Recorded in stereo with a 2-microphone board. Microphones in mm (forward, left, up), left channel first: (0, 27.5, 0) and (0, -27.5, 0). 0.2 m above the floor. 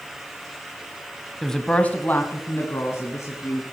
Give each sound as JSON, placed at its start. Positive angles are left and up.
{"t": 1.4, "sound": "a woman speaking", "side_deg": 0, "distance_m": 1.0}